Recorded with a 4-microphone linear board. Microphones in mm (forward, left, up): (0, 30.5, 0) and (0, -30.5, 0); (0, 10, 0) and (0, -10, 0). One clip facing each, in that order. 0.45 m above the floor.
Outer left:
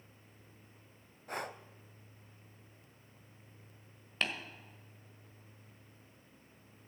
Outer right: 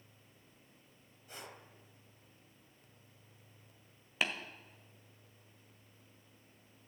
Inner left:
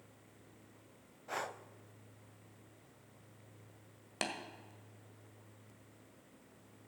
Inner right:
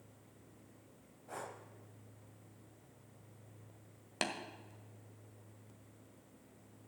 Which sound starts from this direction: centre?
Tapping, at 4.2 s.